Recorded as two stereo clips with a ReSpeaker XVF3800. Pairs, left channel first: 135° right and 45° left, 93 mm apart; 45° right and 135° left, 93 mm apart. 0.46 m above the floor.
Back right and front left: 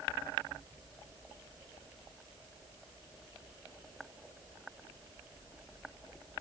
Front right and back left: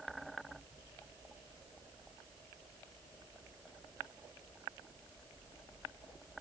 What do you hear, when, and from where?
Only background noise.